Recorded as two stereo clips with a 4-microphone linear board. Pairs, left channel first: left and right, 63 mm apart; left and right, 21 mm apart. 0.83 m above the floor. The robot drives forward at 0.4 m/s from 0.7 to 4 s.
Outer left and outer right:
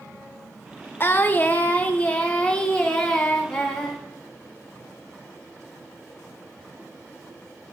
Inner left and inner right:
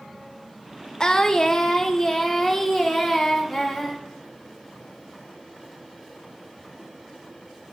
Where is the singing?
35° left (ahead or behind), 0.7 m; by 4.0 s 15° left (ahead or behind), 1.8 m.